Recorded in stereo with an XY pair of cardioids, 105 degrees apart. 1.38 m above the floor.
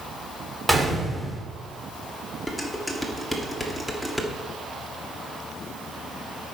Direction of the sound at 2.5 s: Straight ahead.